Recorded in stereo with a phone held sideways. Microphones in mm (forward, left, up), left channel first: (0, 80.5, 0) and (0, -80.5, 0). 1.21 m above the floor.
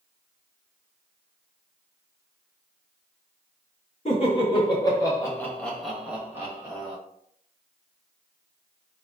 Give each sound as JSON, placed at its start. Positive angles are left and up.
{"t": 4.0, "sound": "laughter", "side_deg": 40, "distance_m": 1.5}